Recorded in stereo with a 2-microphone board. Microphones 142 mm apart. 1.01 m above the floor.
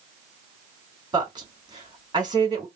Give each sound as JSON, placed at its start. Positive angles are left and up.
{"t": 1.1, "sound": "a woman speaking", "side_deg": -30, "distance_m": 2.5}